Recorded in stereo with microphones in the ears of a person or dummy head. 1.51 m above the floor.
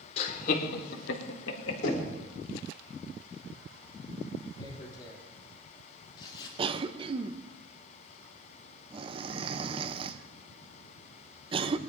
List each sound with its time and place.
0.2 s laughter: 45° left (ahead or behind), 2.0 m; by 2.0 s 60° left (ahead or behind), 2 m
1.8 s knocking: 60° left (ahead or behind), 3.5 m
4.6 s tearing paper: 35° left (ahead or behind), 3 m
6.6 s a cough: 25° right (ahead or behind), 0.7 m